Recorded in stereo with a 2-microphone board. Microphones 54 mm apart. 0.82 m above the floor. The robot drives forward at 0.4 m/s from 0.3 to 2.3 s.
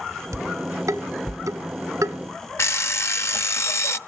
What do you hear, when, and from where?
0.3 s dishes clattering: 80° right, 1.8 m; by 2.2 s 70° right (ahead or behind), 1.9 m
2.6 s an alarm clock: 55° left (ahead or behind), 0.5 m